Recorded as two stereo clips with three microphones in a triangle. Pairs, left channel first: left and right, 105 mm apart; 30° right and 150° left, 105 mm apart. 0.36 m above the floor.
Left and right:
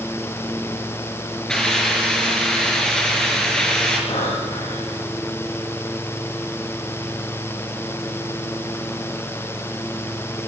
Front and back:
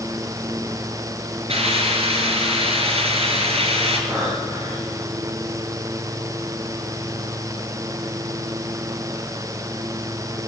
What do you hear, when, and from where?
1.5 s a hiss: 175° left, 5.5 m
4.1 s breathing: 85° left, 8 m